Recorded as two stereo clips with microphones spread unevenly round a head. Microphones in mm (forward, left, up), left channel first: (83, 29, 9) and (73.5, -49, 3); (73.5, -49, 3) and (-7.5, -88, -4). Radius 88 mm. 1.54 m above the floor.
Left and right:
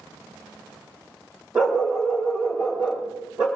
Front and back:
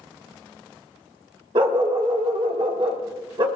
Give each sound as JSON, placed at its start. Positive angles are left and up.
{"t": 1.6, "sound": "a dog barking", "azimuth_deg": 180, "distance_m": 1.5}